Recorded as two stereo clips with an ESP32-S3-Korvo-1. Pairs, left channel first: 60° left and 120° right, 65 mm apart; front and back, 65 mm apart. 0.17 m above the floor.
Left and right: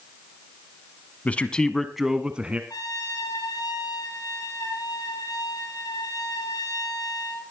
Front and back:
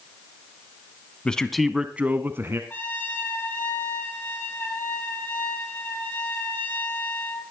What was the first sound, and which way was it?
A man speaking, 45° left.